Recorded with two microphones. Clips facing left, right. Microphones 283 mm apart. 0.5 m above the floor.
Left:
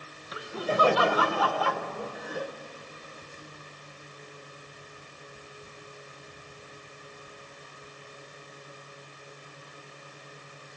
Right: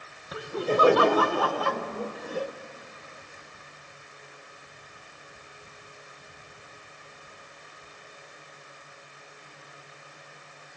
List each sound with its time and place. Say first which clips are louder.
0.3 s laughter: right 4 dB; 55° right (ahead or behind), 1.2 m; by 2.5 s 30° right (ahead or behind), 1.4 m